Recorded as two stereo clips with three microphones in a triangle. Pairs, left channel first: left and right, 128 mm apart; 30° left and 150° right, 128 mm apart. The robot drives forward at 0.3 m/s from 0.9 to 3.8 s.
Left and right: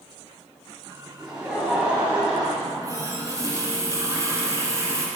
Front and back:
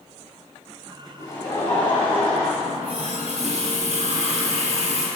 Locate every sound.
1.2 s laughter: 15° right, 1.7 m; by 2.5 s 30° right, 1.5 m
2.6 s a running tap: 150° right, 1.5 m; by 5.1 s 155° right, 1.8 m